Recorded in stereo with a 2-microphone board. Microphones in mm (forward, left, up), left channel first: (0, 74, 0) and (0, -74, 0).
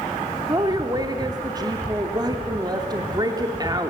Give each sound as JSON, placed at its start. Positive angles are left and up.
{"t": 0.5, "sound": "a woman speaking", "side_deg": -25, "distance_m": 0.7}